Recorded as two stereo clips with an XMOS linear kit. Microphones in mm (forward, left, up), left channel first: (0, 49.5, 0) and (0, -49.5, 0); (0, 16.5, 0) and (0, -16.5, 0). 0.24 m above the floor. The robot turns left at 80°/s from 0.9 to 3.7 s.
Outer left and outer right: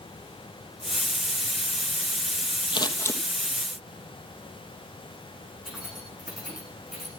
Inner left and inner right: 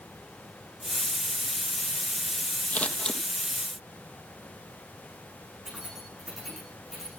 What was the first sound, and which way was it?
Scissors, 50° left (ahead or behind).